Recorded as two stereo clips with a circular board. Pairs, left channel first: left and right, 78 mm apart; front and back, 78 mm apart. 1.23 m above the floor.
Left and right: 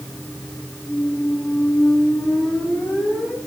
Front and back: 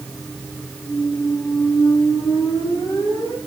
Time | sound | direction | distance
0.9 | a squeak | 5° left | 6.5 m